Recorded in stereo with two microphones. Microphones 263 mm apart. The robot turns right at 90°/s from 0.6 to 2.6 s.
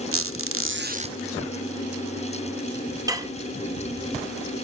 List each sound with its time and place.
0.1 s a squeak: 70° right, 0.6 m; by 1.2 s 20° right, 0.6 m
3.1 s dishes clattering: 15° right (ahead or behind), 0.8 m